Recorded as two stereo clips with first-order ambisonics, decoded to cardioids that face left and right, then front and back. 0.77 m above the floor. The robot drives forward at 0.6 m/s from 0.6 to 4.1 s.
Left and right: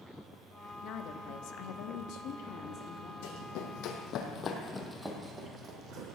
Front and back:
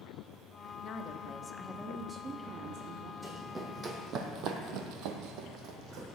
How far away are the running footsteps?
About 2 m.